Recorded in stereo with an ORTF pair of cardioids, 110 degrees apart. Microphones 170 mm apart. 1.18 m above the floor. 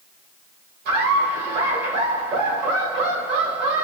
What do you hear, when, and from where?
0.8 s laughter: 70° right, 3 m